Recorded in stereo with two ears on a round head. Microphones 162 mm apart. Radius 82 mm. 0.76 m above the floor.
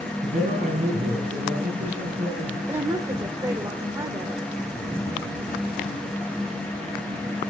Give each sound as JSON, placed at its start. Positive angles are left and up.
{"t": 0.2, "sound": "a man speaking", "side_deg": -45, "distance_m": 6.0}
{"t": 2.7, "sound": "a woman speaking", "side_deg": -20, "distance_m": 2.0}